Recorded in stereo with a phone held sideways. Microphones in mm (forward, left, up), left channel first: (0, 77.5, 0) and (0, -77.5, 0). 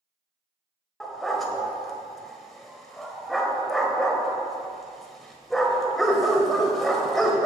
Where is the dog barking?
Centre (ahead or behind), 1.2 m.